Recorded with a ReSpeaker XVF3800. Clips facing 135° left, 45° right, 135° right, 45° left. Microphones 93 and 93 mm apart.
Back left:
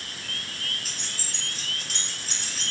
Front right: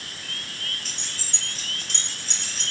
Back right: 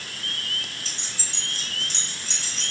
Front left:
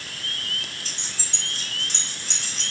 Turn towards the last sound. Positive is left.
turn(degrees=50)